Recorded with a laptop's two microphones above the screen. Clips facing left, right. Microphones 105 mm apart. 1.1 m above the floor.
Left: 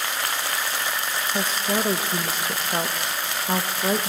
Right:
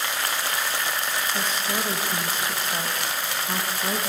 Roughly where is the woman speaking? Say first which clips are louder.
Left 3 dB; left.